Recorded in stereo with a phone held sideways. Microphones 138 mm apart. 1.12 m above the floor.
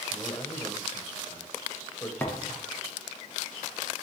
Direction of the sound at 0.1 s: 20° left (ahead or behind).